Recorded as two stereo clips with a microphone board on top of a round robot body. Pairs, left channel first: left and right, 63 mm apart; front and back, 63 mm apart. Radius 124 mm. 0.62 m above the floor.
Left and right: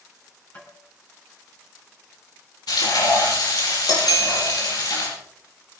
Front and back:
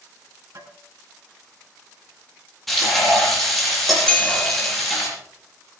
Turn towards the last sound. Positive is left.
turn(degrees=-70)